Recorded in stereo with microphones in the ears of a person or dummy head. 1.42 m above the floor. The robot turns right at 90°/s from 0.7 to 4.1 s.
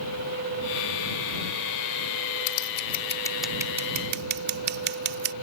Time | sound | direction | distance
2.5 | scissors | 85° left | ?